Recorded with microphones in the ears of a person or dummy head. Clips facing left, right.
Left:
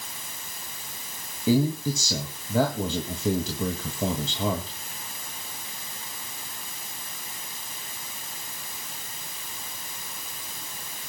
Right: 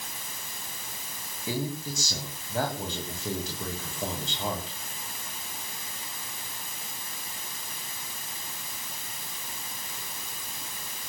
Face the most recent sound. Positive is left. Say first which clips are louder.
# left 10 dB
turn(degrees=70)  # may be behind; listen again after turning